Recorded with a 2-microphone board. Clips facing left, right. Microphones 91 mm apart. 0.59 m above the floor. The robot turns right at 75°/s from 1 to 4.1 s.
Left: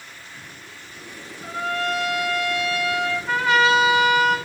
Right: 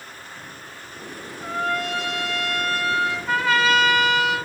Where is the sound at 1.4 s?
140° right, 3.5 m; by 3.2 s 5° right, 3.5 m.